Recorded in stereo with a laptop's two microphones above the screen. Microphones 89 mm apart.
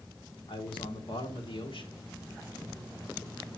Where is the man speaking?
80° left, 2.5 m.